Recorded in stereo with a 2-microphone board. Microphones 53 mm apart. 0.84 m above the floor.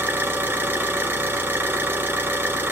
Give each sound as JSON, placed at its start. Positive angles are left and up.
{"t": 0.0, "sound": "an engine running", "side_deg": -45, "distance_m": 2.5}